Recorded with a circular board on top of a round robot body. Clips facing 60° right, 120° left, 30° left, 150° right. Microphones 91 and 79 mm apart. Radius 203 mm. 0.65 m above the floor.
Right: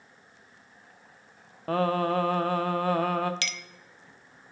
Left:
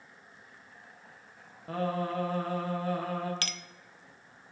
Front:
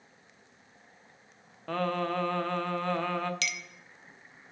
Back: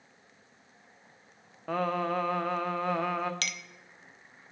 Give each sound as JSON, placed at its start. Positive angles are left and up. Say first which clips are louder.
{"t": 1.7, "sound": "singing", "louder": "right 7 dB, back 1 dB", "azimuth_deg": -70, "distance_m": 1.2}
{"t": 3.4, "sound": "a clink", "louder": "right 3 dB, front 2 dB", "azimuth_deg": 170, "distance_m": 0.6}